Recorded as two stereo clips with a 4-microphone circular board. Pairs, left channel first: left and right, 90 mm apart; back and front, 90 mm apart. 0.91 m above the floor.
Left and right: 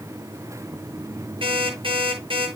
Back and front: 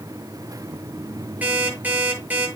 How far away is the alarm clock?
About 8.5 m.